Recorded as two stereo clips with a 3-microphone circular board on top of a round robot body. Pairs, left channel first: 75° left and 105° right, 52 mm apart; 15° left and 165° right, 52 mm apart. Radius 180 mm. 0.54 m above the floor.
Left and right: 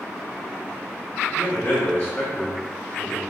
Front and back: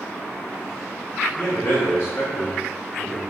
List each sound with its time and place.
1.4 s a man speaking: 35° left, 1.8 m